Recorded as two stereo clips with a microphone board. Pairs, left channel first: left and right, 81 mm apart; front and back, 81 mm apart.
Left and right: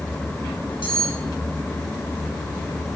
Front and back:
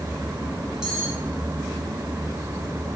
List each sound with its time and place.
0.8 s cutlery clinking: 100° left, 5.5 m